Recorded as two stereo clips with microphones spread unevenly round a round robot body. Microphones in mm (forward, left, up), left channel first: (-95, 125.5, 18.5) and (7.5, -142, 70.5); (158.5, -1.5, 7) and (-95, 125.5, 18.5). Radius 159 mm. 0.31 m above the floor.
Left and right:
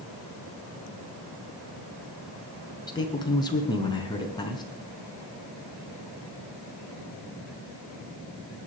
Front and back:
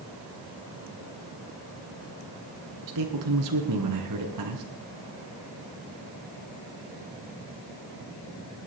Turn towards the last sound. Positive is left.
turn(degrees=-175)